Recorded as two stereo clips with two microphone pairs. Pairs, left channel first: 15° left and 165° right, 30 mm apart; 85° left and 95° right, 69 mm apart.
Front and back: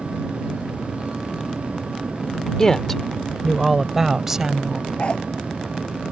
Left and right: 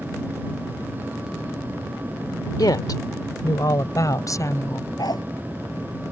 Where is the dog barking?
65° left.